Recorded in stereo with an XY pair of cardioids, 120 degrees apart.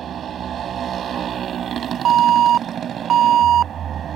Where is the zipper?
No zipper in this recording.